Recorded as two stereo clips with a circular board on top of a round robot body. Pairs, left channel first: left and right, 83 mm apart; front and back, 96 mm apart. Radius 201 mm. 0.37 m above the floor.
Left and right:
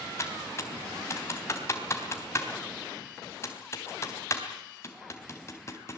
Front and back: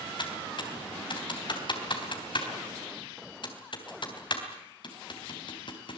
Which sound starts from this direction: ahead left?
Typing on a keyboard, at 0.2 s.